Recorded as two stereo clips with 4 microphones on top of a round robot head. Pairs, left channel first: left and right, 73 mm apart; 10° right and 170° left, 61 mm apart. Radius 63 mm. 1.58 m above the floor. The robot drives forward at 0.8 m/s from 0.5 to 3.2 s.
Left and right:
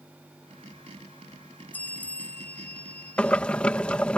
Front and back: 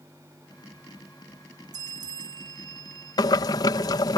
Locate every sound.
1.7 s a bell: 160° left
3.2 s boiling: 10° left